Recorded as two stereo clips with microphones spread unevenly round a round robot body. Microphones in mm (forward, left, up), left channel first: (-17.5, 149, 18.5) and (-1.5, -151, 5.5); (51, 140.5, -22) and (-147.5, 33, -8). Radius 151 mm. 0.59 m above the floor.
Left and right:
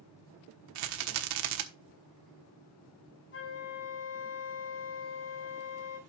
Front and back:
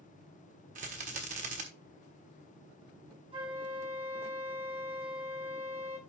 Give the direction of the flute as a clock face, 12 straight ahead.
7 o'clock.